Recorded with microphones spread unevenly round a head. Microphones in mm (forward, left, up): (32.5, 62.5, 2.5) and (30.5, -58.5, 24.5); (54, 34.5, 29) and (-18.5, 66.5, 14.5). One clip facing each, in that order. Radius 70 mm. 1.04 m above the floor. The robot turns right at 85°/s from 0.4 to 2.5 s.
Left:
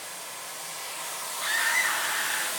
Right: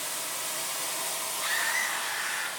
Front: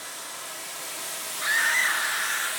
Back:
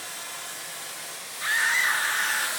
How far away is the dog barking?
I don't hear a dog barking.